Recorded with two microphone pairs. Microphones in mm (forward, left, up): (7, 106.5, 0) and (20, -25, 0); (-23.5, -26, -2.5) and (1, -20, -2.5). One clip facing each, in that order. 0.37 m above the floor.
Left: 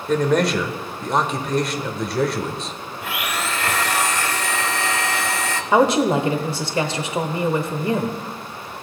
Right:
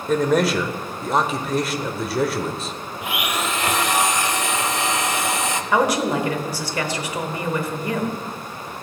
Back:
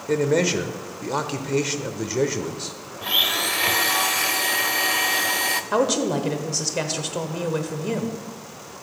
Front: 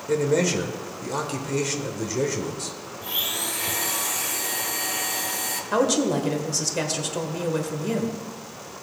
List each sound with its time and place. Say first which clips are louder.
0.1 s a man speaking: even, back 1 dB; 175° right, 0.8 m
3.0 s a blender: right 1 dB, back 8 dB; 155° right, 0.6 m
5.7 s a woman speaking: left 4 dB, front 2 dB; 125° left, 1.1 m